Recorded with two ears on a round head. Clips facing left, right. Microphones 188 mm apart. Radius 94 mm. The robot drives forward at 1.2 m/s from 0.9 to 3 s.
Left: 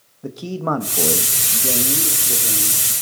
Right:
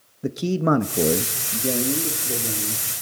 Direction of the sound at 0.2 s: 25° right (ahead or behind).